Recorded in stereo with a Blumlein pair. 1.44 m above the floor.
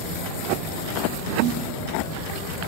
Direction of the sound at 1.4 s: 45° right.